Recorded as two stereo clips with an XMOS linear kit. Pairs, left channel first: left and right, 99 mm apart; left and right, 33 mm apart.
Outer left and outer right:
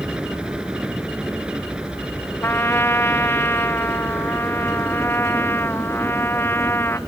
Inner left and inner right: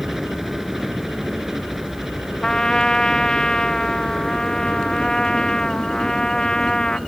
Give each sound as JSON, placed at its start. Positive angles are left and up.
{"t": 0.0, "sound": "a helicopter", "side_deg": -10}
{"t": 2.4, "sound": "a trumpet", "side_deg": 25}